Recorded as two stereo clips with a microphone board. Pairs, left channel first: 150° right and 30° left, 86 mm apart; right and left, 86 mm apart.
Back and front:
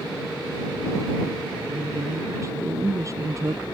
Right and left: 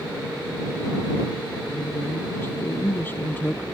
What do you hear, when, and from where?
1.7 s a woman speaking: 25° right